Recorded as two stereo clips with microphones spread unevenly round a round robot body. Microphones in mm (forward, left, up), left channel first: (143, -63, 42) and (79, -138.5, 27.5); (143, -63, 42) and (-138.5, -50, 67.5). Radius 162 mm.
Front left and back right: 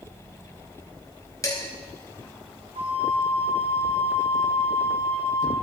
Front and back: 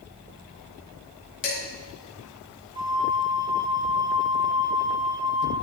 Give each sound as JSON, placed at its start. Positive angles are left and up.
{"t": 1.4, "sound": "dishes clattering", "azimuth_deg": -5, "distance_m": 4.5}
{"t": 2.8, "sound": "a flute", "azimuth_deg": -110, "distance_m": 1.0}